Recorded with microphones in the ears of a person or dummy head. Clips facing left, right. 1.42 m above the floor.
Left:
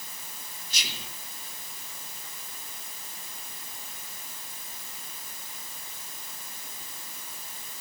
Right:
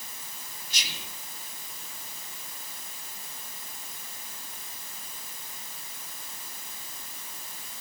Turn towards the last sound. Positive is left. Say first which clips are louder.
# left 1 dB
turn(degrees=75)  # may be behind; listen again after turning